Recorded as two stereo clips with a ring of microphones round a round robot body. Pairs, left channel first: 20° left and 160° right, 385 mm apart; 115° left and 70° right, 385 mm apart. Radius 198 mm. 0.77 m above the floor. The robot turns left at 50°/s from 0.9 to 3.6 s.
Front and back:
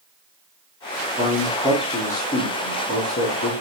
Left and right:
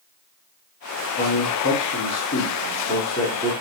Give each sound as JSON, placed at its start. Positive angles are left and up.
{"t": 1.2, "sound": "a man speaking", "azimuth_deg": 145, "distance_m": 1.2}